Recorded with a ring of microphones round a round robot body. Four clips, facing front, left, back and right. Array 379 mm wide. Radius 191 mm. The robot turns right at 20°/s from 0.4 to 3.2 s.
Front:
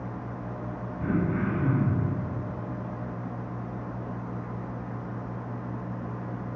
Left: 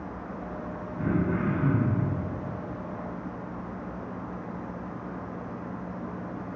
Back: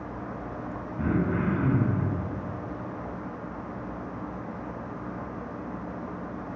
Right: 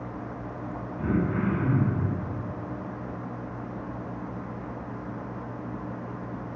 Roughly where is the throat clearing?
Behind.